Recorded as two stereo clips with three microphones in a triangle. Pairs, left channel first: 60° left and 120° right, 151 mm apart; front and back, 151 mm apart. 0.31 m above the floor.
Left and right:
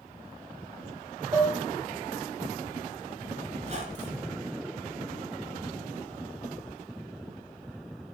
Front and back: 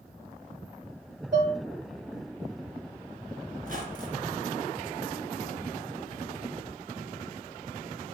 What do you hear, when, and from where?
1.3 s dishes clattering: 175° left, 1.0 m
3.6 s a squeak: 160° right, 1.6 m